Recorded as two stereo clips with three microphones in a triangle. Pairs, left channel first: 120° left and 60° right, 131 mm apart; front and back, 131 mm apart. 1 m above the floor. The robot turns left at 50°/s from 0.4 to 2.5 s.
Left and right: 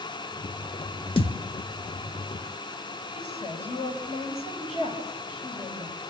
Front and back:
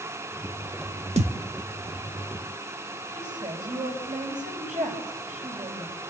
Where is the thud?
160° left, 1.1 m; by 1.4 s 150° left, 1.1 m.